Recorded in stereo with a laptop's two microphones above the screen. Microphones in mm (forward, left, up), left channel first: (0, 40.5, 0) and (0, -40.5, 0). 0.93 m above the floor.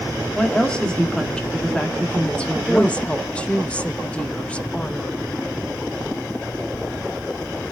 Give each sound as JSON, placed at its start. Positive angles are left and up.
{"t": 0.3, "sound": "a woman speaking", "side_deg": 10, "distance_m": 1.6}
{"t": 2.5, "sound": "a woman speaking", "side_deg": 15, "distance_m": 1.2}